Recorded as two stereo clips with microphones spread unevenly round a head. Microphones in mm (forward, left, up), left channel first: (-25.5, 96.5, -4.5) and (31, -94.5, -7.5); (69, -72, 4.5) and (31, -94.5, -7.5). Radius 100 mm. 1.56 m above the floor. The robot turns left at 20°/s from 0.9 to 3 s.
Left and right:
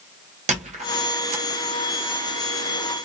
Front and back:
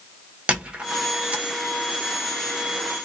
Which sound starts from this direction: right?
A squeak, at 0.5 s.